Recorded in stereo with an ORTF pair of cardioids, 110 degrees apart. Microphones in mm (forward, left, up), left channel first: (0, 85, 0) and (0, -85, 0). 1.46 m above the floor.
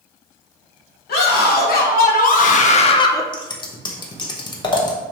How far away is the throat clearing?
I don't hear throat clearing.